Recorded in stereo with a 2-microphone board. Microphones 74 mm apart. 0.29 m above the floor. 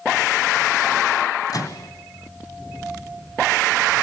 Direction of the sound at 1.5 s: 60° left (ahead or behind).